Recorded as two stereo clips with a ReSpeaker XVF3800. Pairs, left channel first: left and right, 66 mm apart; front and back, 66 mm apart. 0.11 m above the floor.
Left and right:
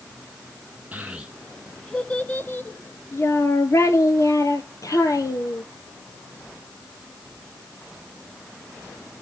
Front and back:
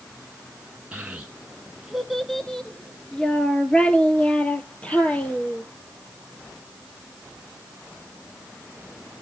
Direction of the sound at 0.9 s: 130° right.